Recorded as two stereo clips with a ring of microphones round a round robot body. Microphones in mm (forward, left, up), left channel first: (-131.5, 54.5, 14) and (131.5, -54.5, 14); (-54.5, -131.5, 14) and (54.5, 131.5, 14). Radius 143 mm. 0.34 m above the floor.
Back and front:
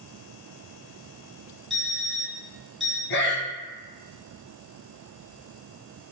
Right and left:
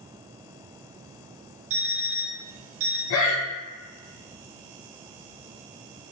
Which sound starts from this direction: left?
An alarm clock, at 1.7 s.